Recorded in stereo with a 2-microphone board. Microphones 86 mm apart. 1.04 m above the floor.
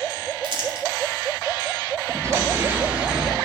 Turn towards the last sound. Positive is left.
turn(degrees=-5)  # may be behind; listen again after turning